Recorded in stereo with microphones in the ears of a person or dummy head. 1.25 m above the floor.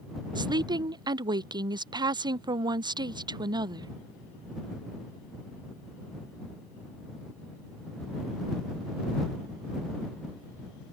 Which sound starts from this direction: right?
A woman speaking, at 0.3 s.